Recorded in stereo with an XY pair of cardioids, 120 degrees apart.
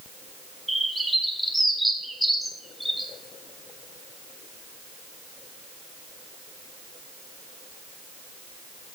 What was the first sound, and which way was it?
A bird, straight ahead.